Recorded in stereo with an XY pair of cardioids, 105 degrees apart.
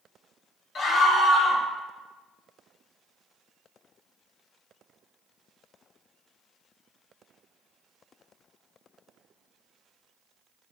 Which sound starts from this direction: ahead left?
A scream, at 0.8 s.